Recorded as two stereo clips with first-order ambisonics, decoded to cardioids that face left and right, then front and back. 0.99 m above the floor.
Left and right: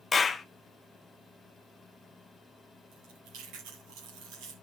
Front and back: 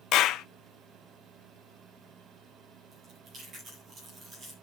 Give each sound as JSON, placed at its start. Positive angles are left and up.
{"t": 0.1, "sound": "a clap", "azimuth_deg": 25, "distance_m": 0.5}
{"t": 2.9, "sound": "chewing", "azimuth_deg": -120, "distance_m": 8.0}